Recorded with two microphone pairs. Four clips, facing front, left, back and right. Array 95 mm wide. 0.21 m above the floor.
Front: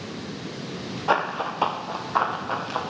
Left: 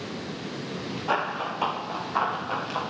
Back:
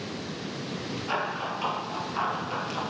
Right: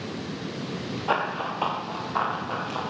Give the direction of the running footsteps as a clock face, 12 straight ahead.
12 o'clock.